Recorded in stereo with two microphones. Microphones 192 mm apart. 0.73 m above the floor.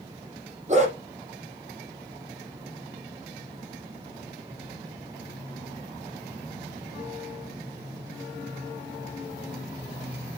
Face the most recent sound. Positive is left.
turn(degrees=-40)  # may be behind; listen again after turning